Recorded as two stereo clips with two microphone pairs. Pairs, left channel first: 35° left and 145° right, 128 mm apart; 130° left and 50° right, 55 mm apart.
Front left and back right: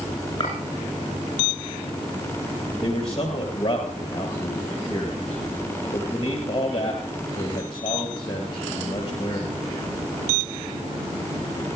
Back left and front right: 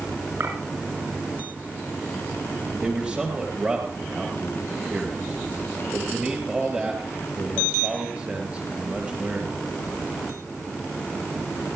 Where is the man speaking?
5° left, 1.9 m.